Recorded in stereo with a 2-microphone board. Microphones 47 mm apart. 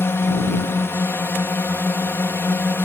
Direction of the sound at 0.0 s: 60° left (ahead or behind).